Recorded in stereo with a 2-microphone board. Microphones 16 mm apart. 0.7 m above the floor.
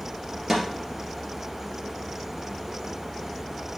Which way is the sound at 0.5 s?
10° right (ahead or behind).